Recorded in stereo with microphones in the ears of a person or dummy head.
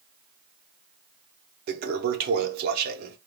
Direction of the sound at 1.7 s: 55° right (ahead or behind).